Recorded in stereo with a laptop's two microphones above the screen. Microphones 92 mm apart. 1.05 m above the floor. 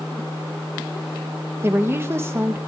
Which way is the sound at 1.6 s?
25° right (ahead or behind).